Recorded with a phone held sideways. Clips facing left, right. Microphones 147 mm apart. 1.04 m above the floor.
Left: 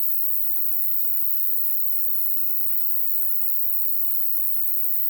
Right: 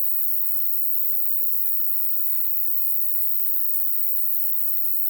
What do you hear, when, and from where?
0.0 s an insect: 75° right (ahead or behind)